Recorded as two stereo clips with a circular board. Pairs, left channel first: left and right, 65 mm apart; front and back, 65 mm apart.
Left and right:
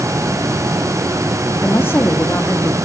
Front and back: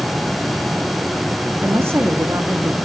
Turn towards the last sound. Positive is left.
turn(degrees=140)